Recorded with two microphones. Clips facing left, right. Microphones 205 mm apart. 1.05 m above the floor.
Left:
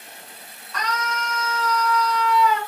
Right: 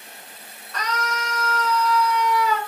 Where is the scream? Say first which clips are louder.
Even; 55° right (ahead or behind), 1.0 m.